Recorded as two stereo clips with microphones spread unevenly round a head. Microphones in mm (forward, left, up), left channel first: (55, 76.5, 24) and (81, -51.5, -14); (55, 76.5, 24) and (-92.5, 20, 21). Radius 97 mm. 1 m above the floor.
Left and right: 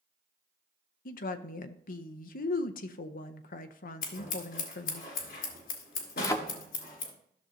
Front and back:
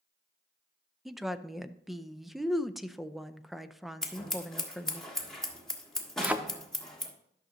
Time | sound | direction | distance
1.1 | a woman speaking | 115° left | 0.6 m
4.0 | scissors | 110° left | 1.6 m
6.2 | a thud | 125° left | 0.6 m